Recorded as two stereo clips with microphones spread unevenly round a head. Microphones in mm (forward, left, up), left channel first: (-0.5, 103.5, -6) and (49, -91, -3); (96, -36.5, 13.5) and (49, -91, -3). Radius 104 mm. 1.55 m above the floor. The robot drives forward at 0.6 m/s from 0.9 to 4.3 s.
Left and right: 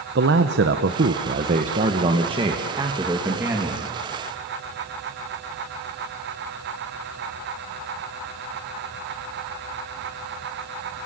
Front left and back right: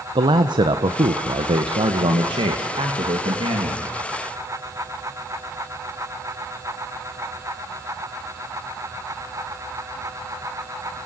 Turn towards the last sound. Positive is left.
turn(degrees=-160)